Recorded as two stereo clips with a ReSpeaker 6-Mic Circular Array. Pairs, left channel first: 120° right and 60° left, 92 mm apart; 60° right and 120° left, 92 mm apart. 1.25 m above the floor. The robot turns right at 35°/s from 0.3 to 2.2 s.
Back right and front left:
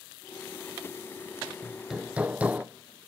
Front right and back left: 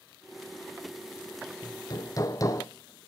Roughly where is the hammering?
Ahead right.